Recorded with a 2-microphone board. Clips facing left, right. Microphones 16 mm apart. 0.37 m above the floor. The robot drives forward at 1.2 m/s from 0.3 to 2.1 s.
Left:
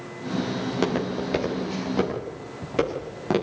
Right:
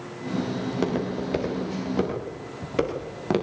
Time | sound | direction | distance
0.6 | footsteps | 25° left (ahead or behind) | 6 m